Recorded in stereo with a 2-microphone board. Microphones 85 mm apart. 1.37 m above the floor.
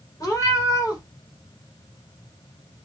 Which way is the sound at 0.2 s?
40° left (ahead or behind).